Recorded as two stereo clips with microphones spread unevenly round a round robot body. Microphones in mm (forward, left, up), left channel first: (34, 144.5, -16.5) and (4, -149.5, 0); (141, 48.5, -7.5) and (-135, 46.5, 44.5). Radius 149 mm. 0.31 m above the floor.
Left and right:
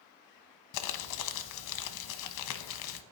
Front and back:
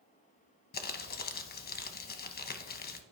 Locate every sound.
0.7 s crumpling: 55° left, 0.7 m